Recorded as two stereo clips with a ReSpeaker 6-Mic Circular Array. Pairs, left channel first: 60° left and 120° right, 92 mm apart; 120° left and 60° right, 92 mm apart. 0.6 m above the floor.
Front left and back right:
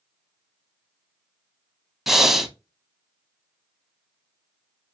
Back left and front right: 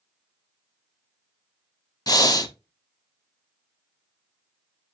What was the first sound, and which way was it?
Breathing, 155° left.